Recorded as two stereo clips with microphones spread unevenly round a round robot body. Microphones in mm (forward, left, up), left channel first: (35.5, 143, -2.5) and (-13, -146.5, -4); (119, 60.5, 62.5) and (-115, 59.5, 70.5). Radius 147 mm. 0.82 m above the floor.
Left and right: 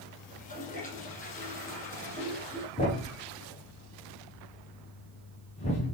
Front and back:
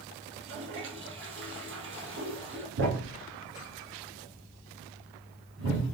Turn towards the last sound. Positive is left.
turn(degrees=150)